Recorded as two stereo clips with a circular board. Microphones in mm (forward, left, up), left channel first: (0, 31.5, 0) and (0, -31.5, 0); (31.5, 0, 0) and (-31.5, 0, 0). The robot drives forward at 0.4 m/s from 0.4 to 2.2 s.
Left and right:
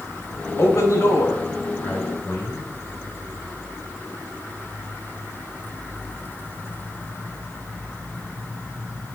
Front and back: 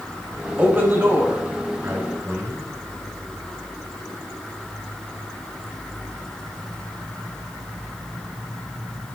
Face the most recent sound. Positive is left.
turn(degrees=140)